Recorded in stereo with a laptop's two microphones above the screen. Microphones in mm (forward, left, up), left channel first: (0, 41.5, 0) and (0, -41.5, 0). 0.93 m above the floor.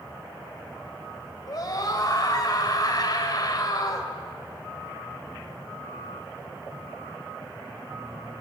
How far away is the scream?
About 5.5 m.